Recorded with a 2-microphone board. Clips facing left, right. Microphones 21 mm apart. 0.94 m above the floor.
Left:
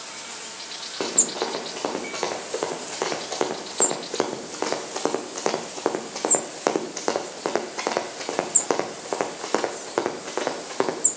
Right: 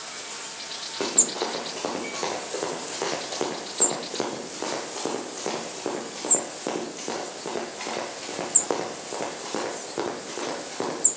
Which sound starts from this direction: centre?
Running footsteps, at 1.0 s.